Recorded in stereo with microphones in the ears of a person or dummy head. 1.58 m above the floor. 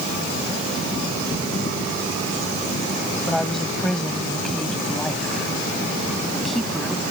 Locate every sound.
3.3 s a woman speaking: centre (ahead or behind)